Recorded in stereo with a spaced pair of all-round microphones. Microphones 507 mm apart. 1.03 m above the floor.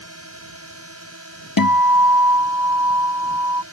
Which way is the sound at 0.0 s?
30° right (ahead or behind).